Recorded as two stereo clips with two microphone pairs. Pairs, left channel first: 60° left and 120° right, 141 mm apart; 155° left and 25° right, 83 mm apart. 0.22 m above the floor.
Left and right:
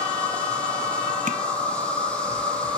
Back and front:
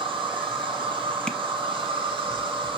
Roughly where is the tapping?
Behind right.